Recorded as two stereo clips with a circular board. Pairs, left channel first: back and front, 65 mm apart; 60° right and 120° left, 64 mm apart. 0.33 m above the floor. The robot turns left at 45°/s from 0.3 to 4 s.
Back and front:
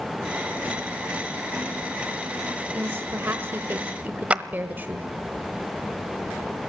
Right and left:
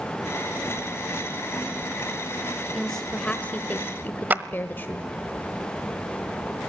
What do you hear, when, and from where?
2.7 s a woman speaking: 25° left, 1.4 m; by 5.1 s 30° right, 1.4 m
4.3 s a clap: 70° left, 1.0 m